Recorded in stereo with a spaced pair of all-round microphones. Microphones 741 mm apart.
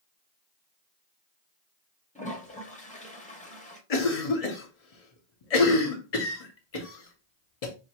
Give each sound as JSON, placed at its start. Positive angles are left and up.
{"t": 2.1, "sound": "a toilet flushing", "side_deg": 10, "distance_m": 1.0}
{"t": 3.9, "sound": "a cough", "side_deg": 55, "distance_m": 0.8}